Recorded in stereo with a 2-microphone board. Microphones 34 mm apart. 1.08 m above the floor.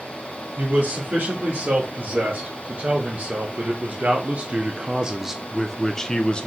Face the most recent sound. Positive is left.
turn(degrees=30)  # may be behind; listen again after turning